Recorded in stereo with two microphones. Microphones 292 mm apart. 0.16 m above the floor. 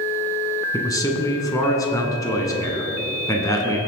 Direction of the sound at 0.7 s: 10° left (ahead or behind).